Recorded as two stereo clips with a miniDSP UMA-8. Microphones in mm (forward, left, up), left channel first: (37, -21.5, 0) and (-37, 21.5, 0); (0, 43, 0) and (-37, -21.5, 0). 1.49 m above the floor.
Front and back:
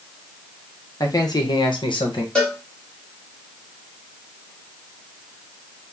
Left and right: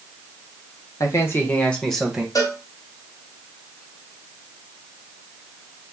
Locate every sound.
1.0 s a man speaking: 15° left, 1.0 m; by 2.2 s 40° right, 0.9 m
2.4 s a cowbell: 45° left, 1.1 m